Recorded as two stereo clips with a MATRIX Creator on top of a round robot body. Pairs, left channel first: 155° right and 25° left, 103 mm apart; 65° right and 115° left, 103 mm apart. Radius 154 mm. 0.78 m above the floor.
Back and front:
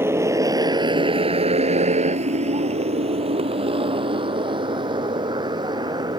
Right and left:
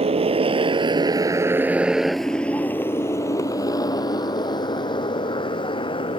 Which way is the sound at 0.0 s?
90° left.